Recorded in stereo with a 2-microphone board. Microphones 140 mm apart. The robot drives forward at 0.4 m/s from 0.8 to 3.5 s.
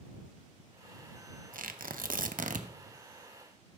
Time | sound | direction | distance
1.5 | tearing paper | 80° right | 0.7 m